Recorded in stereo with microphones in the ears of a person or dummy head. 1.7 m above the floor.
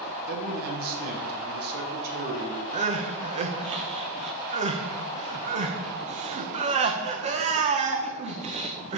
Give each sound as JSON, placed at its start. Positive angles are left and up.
{"t": 0.3, "sound": "a man speaking", "side_deg": -55, "distance_m": 1.7}
{"t": 2.7, "sound": "crying", "side_deg": -30, "distance_m": 1.2}